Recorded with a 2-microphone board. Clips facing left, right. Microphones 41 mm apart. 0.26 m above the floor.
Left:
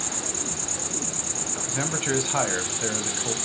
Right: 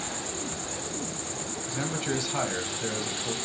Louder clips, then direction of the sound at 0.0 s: Left 1 dB; 70° left (ahead or behind).